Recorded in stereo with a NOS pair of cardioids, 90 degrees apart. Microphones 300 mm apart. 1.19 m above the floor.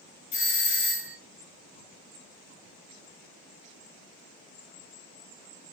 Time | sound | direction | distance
0.3 | a doorbell | 65° left | 1.2 m